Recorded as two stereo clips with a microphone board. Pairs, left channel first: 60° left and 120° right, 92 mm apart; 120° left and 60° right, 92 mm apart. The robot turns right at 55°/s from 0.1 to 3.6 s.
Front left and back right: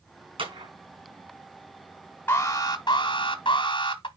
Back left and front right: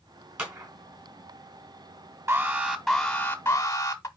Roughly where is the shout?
I don't hear a shout.